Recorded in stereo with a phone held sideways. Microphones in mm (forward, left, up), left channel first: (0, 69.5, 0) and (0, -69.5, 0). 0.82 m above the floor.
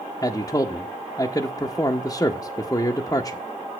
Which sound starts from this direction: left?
A man speaking, at 0.2 s.